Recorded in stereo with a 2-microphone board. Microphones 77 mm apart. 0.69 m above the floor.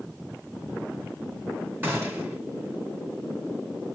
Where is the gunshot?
25° right (ahead or behind), 5 m.